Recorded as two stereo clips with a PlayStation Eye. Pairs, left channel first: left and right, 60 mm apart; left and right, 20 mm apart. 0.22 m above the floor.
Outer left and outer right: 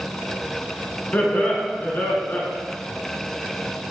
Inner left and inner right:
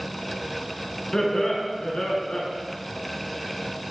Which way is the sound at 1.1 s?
35° left (ahead or behind).